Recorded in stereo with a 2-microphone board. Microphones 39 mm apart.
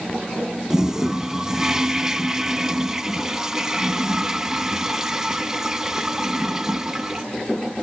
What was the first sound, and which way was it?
A toilet flushing, 15° right (ahead or behind).